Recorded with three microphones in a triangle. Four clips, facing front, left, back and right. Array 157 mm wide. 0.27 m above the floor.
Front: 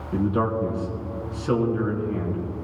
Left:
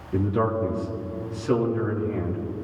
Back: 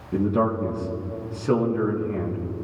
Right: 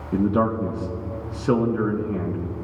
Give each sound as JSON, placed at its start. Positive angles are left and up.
{"t": 0.1, "sound": "a man speaking", "azimuth_deg": -100, "distance_m": 3.5}